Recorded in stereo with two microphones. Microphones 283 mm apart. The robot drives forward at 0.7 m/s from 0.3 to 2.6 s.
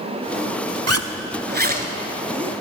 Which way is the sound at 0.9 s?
70° right (ahead or behind).